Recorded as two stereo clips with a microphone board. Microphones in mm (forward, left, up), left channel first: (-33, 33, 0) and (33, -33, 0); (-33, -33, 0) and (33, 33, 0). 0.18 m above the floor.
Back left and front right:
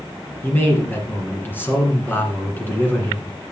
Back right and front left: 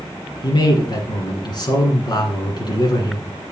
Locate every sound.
0.4 s a man speaking: 160° right, 2 m